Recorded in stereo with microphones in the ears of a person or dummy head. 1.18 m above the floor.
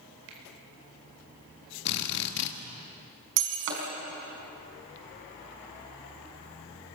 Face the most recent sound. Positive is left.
turn(degrees=-80)